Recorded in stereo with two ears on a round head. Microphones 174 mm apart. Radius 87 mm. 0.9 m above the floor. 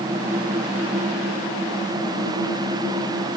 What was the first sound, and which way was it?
Only background noise.